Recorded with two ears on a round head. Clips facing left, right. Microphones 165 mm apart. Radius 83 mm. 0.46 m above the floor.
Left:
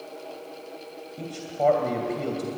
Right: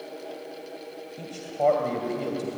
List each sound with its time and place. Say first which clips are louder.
1.2 s a man speaking: even; centre (ahead or behind), 2.5 m